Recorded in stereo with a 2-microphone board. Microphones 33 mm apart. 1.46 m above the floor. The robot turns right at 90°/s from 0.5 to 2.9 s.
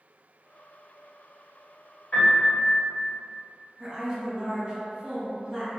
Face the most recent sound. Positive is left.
turn(degrees=-30)  # may be behind; listen again after turning